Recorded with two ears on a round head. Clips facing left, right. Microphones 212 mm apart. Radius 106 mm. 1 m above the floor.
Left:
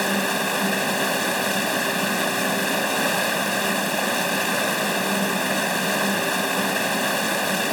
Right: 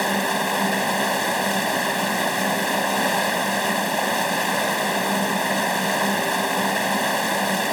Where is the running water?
10° left (ahead or behind).